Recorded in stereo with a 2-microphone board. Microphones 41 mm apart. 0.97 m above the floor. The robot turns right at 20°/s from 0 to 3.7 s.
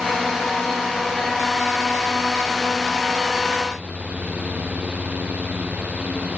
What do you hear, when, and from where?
Only background noise.